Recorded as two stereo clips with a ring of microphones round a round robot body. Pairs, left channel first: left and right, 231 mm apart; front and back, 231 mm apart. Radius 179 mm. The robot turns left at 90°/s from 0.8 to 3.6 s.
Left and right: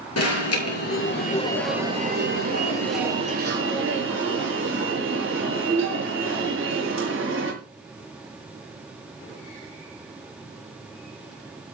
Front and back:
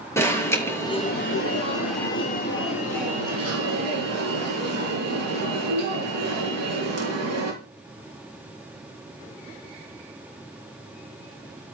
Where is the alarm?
80° left, 7 m; by 7.5 s 175° right, 7 m.